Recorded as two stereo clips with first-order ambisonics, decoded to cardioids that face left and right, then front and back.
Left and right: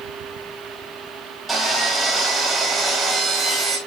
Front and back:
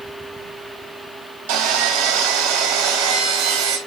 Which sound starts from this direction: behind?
Sawing, at 1.5 s.